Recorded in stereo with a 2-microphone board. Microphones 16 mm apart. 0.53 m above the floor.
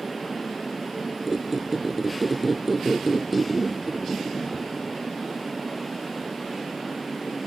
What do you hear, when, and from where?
1.3 s a squeak: 5° right (ahead or behind), 0.6 m